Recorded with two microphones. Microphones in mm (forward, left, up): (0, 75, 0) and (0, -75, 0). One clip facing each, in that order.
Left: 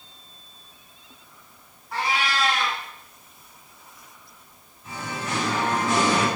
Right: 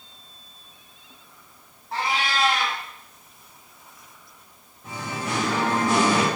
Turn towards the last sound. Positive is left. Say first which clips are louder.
# right 1 dB
turn(degrees=-55)  # may be behind; listen again after turning